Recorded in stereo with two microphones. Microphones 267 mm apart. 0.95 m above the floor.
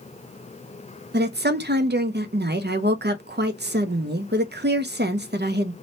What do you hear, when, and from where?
1.1 s a woman speaking: 40° right (ahead or behind), 0.5 m